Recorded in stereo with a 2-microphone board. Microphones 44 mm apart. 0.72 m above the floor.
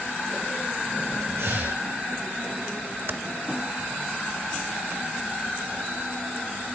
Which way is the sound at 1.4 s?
85° right.